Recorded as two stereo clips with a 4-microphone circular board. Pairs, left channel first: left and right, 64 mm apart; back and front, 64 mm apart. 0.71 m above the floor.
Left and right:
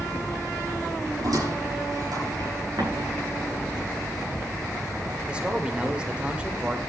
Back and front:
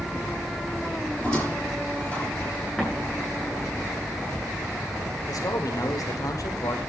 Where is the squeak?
110° right, 7 m.